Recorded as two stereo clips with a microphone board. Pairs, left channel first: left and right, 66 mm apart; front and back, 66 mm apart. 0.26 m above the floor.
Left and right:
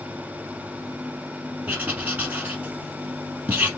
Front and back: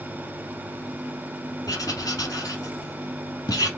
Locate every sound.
1.7 s writing: 25° right, 2 m